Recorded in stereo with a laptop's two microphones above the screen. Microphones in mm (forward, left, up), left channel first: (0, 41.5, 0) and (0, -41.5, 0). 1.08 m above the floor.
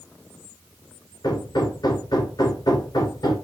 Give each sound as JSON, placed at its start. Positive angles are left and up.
{"t": 1.2, "sound": "hammering", "side_deg": 55, "distance_m": 3.0}